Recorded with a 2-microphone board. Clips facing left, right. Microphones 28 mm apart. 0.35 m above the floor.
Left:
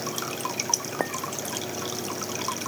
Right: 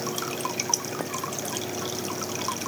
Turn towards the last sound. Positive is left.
turn(degrees=45)  # may be behind; listen again after turning